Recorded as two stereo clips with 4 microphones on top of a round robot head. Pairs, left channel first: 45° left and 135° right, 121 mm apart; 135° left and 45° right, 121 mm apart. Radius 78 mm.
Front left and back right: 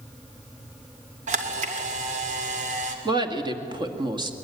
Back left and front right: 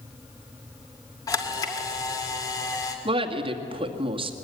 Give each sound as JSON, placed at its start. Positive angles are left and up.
{"t": 1.3, "sound": "a camera shutter", "azimuth_deg": -160, "distance_m": 2.5}
{"t": 3.0, "sound": "a woman speaking", "azimuth_deg": -85, "distance_m": 2.0}